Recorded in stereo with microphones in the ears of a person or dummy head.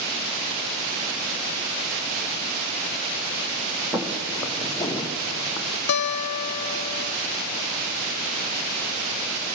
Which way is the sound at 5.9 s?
55° left (ahead or behind).